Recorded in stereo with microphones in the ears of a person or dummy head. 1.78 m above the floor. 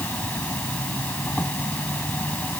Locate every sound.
0.0 s an insect: 10° left (ahead or behind)